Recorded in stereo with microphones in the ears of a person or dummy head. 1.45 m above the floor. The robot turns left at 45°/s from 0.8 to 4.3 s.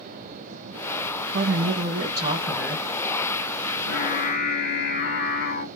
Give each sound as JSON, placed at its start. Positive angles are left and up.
{"t": 1.3, "sound": "a woman speaking", "azimuth_deg": -120, "distance_m": 1.2}
{"t": 3.7, "sound": "singing", "side_deg": 65, "distance_m": 0.9}